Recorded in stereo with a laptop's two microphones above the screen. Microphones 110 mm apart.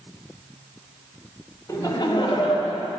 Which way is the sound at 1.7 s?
25° left (ahead or behind).